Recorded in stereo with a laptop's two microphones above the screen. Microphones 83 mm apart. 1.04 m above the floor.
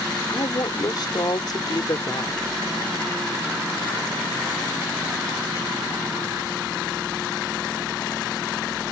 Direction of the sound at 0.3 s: 55° left (ahead or behind).